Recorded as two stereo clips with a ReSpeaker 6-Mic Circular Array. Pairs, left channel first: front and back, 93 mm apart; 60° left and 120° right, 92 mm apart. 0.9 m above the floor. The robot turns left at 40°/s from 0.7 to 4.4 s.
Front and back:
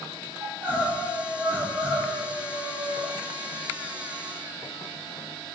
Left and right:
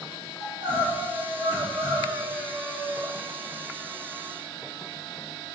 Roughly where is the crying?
Right.